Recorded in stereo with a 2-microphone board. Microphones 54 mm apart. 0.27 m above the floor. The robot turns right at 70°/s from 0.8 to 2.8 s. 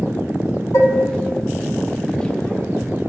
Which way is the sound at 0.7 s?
65° left (ahead or behind).